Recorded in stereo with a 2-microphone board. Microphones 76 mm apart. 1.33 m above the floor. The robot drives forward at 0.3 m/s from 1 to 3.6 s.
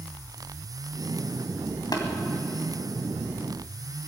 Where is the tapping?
60° left (ahead or behind), 2 m.